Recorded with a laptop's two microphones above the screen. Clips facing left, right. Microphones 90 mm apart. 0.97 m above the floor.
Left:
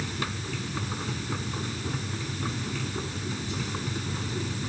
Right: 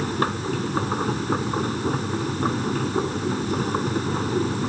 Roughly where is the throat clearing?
I don't hear throat clearing.